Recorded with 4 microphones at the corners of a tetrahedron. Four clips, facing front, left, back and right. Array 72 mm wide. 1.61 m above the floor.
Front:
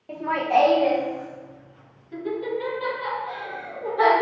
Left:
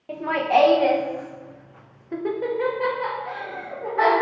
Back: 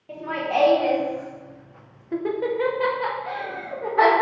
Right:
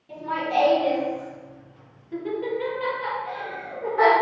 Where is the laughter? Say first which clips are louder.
Left 5 dB, front 4 dB; 70° left, 1.3 m; by 4.2 s straight behind, 1.9 m.